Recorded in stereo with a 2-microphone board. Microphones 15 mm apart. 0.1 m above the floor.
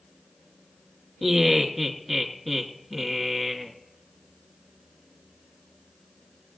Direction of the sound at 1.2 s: 5° left (ahead or behind).